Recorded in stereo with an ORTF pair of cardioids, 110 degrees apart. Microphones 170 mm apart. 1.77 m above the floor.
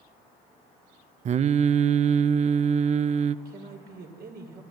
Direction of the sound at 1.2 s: 45° right.